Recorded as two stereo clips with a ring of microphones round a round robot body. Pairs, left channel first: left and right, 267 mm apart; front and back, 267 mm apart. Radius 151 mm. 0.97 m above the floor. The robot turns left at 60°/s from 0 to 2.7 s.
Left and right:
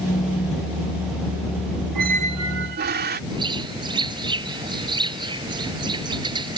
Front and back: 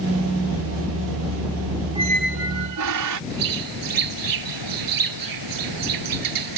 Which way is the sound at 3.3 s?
165° right.